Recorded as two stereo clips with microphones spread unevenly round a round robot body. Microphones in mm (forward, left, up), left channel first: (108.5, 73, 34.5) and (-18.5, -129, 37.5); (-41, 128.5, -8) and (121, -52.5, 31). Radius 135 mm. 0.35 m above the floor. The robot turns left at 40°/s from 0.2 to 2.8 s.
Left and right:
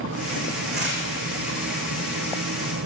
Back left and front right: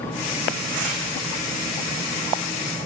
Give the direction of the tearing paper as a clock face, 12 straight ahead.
2 o'clock.